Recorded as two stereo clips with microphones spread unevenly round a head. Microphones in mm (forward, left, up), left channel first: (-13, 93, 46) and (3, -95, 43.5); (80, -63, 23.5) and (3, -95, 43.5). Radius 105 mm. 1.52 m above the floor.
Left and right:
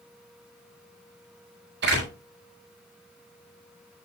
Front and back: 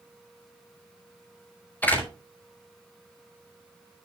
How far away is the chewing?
No chewing in this recording.